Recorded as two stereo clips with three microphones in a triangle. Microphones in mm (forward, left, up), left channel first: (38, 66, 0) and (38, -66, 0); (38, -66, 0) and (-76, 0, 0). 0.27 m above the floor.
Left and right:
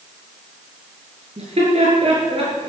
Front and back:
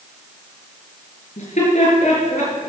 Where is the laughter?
55° right, 5.5 m; by 2.7 s 50° right, 6 m.